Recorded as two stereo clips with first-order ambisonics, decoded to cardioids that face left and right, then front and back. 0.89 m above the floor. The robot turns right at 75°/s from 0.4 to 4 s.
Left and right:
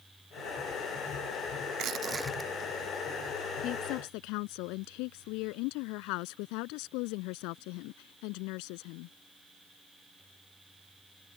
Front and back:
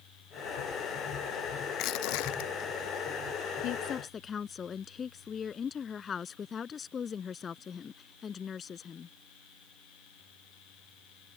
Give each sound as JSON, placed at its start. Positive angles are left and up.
{"t": 1.7, "sound": "crushing", "azimuth_deg": -45}
{"t": 3.6, "sound": "a woman speaking", "azimuth_deg": 40}